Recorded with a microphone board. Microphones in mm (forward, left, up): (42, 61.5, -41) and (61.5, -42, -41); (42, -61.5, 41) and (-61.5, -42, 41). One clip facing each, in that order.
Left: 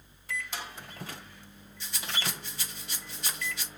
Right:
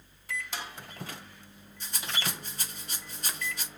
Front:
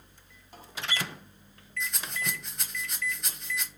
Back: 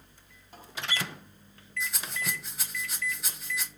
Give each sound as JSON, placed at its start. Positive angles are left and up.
{"t": 1.8, "sound": "a rattle", "azimuth_deg": -105, "distance_m": 0.8}